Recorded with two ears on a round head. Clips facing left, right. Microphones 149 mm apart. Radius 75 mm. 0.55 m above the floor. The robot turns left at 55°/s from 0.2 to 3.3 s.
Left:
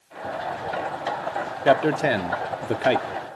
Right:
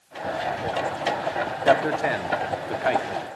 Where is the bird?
No bird in this recording.